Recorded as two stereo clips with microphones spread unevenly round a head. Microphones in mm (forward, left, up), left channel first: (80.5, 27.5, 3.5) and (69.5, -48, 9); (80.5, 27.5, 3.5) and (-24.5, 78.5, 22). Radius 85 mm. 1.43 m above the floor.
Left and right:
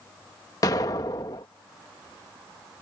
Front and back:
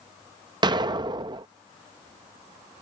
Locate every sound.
0.6 s an explosion: 125° left